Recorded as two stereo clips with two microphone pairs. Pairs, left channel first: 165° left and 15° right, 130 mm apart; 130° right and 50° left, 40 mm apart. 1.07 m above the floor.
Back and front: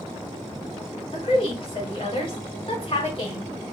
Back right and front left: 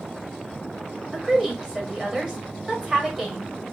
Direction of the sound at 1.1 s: 120° left.